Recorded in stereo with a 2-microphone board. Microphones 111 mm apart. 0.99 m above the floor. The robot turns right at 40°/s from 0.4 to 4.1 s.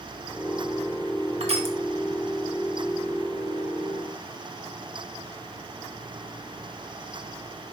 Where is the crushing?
65° right (ahead or behind), 1.7 m; by 1.8 s 55° right (ahead or behind), 1.7 m.